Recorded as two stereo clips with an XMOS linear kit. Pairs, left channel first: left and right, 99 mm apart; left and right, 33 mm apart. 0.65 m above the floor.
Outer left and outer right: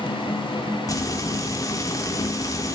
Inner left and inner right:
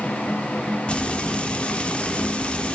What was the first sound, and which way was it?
Frying, 35° left (ahead or behind).